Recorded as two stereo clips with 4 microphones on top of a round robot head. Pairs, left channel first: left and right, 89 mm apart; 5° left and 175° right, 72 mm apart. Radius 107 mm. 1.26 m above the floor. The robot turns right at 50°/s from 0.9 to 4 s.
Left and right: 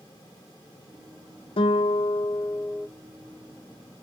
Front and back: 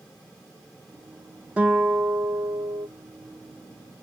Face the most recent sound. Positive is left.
turn(degrees=-130)